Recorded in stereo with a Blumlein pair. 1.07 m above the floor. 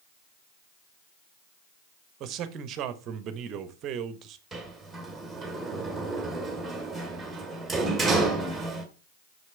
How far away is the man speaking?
About 1.0 m.